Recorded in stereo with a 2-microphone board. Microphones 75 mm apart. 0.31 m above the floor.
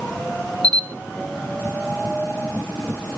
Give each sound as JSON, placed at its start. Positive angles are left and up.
{"t": 0.6, "sound": "a camera shutter", "side_deg": -65, "distance_m": 1.0}